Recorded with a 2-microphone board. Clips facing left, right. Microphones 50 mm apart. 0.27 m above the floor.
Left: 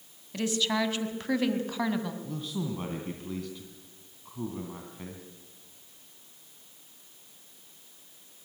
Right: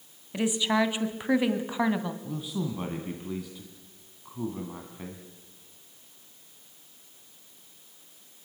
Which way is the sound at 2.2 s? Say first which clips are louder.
Right 1 dB; 10° right (ahead or behind).